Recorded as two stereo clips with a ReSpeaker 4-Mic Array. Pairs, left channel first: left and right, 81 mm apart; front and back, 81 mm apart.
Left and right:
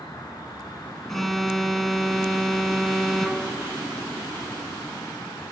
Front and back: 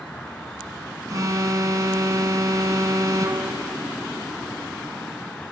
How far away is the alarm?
About 1.0 m.